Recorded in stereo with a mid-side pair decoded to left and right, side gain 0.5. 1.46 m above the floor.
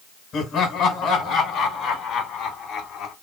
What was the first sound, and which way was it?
Laughter, 55° left.